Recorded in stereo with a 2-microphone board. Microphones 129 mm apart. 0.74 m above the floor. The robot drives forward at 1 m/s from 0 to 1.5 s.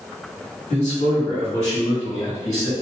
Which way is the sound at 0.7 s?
65° left (ahead or behind).